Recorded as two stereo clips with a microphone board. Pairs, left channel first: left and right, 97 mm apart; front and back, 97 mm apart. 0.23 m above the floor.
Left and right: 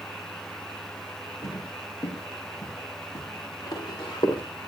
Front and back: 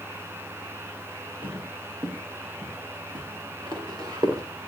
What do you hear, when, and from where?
1.4 s footsteps: 150° left, 8.5 m; by 4.4 s 130° left, 7 m